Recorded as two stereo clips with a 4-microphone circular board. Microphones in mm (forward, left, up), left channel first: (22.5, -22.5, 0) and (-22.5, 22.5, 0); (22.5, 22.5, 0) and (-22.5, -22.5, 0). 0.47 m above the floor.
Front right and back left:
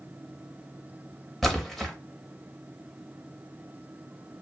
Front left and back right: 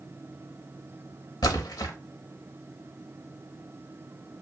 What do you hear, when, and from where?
1.4 s a splash: 45° left, 0.7 m